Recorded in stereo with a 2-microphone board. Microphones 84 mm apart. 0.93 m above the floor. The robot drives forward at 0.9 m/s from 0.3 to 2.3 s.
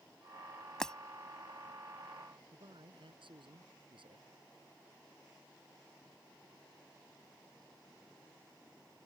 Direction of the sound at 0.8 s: 5° left (ahead or behind).